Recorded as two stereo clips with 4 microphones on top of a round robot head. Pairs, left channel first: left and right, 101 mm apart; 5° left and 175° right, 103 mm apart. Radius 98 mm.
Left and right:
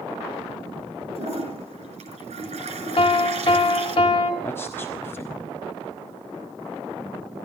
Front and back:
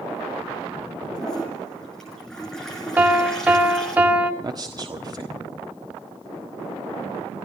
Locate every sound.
1.1 s a toilet flushing: 80° right, 3.5 m
3.0 s a piano: 115° left, 2 m
4.4 s a man speaking: 155° left, 1.5 m